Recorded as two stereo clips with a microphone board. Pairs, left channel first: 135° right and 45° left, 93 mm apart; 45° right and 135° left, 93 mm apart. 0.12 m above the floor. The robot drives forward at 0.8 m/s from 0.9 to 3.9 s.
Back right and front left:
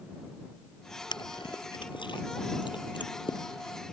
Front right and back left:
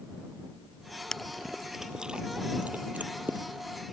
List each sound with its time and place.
1.1 s chewing: 125° right; by 3.4 s 155° right